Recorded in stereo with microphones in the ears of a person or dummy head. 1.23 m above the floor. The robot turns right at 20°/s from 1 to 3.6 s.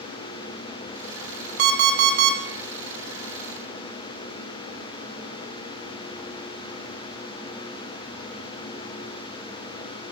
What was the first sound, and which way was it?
An alarm clock, 55° right (ahead or behind).